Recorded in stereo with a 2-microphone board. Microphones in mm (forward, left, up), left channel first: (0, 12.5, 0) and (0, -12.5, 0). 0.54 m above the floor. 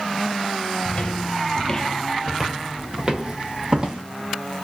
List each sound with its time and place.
0.8 s footsteps: 35° left (ahead or behind), 0.9 m; by 4.0 s 30° right (ahead or behind), 1.3 m